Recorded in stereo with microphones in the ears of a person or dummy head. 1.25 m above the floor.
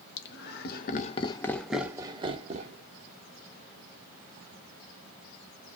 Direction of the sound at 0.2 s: 55° left (ahead or behind).